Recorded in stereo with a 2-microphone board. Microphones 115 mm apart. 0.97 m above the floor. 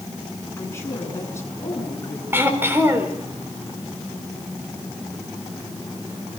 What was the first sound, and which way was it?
A woman speaking, 25° left (ahead or behind).